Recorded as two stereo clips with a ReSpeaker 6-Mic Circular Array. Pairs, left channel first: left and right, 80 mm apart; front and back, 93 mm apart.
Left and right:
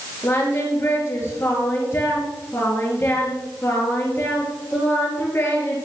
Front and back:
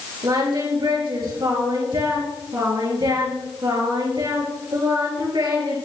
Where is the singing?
145° left, 3.5 m.